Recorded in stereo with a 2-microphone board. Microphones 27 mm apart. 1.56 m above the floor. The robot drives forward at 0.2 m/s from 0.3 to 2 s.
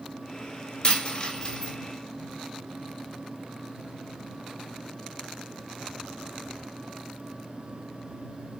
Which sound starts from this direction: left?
A dropped coin, at 0.8 s.